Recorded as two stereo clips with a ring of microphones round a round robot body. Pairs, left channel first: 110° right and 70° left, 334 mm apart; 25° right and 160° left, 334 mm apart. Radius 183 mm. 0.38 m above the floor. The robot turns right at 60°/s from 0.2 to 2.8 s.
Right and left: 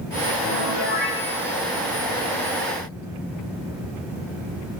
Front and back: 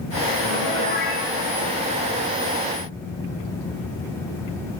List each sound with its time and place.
0.4 s a piano: 120° right, 1.3 m; by 1.2 s 75° right, 1.3 m